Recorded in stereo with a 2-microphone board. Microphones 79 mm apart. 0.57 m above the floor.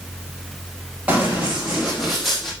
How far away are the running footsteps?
About 5 m.